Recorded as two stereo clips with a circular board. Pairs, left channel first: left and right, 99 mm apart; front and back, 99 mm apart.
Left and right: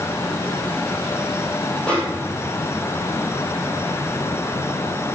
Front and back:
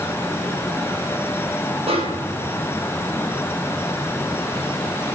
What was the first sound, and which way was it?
A snare drum, 170° left.